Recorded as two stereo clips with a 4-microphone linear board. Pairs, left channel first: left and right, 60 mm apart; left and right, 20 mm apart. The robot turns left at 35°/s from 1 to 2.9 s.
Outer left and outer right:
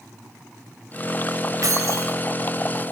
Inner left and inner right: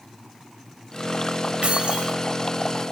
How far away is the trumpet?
No trumpet in this recording.